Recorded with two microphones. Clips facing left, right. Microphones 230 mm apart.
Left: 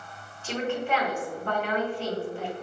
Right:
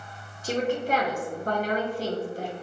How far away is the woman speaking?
About 0.9 m.